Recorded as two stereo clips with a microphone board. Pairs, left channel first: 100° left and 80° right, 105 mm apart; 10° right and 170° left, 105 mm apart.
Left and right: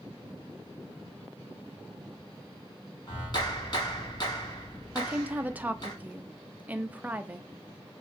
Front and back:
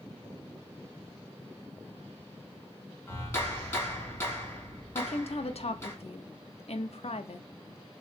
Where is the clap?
55° left, 2 m.